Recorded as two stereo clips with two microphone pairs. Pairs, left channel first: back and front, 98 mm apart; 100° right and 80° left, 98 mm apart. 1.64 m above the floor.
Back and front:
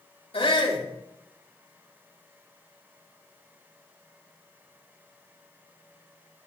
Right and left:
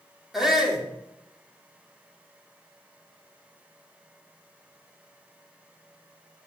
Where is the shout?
170° left, 5 m.